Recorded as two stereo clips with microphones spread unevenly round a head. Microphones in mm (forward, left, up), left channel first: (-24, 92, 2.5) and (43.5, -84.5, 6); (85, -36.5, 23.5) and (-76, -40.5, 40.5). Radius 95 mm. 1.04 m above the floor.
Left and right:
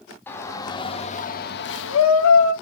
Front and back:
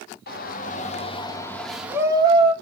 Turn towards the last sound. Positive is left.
turn(degrees=125)